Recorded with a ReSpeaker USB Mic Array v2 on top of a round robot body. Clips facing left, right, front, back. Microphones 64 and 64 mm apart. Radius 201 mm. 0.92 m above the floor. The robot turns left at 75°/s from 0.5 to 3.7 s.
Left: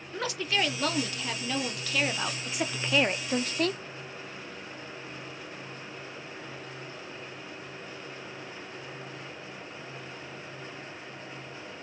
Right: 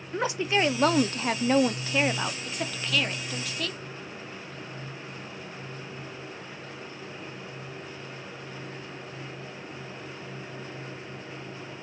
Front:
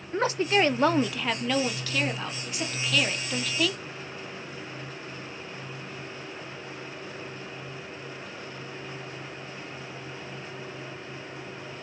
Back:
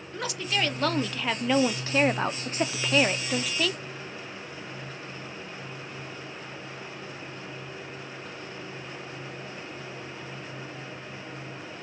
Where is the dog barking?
No dog barking in this recording.